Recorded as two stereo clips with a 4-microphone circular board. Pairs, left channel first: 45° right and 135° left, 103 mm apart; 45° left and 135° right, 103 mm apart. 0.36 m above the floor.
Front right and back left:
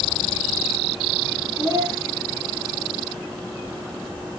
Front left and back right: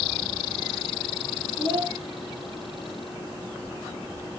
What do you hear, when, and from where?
1.6 s a child speaking: 160° right, 6 m